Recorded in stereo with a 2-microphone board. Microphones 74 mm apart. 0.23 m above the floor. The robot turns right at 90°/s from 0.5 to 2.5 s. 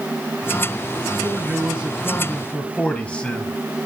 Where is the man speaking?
85° right, 1.6 m; by 3.5 s 30° left, 1.6 m.